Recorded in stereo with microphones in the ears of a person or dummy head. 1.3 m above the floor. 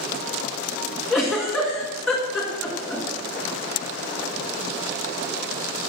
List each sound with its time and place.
1.1 s a giggle: centre (ahead or behind), 1.9 m